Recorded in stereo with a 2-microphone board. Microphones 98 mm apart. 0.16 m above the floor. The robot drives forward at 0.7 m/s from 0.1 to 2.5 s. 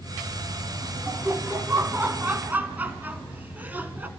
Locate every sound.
1.1 s laughter: 20° right (ahead or behind), 1.1 m; by 4.1 s 15° right (ahead or behind), 1.3 m